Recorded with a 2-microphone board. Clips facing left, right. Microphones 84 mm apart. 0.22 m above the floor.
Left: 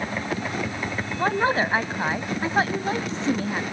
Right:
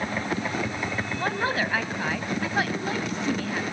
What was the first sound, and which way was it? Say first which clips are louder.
A woman speaking: left 6 dB; 25° left (ahead or behind).